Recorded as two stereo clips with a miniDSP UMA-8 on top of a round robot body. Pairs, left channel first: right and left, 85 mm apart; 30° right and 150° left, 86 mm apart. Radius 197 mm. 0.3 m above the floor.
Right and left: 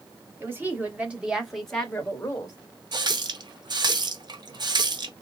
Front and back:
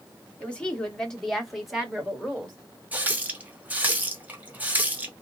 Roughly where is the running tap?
Left.